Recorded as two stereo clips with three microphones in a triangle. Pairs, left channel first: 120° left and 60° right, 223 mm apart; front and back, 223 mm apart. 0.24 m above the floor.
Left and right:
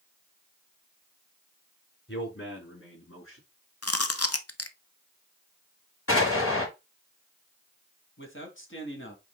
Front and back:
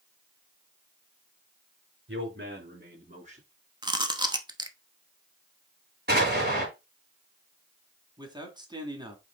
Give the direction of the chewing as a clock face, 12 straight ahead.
8 o'clock.